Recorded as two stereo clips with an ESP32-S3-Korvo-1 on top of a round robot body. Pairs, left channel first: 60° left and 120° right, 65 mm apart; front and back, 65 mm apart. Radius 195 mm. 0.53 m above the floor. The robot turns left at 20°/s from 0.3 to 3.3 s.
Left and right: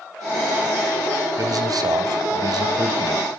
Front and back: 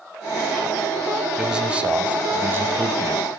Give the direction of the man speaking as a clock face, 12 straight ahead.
3 o'clock.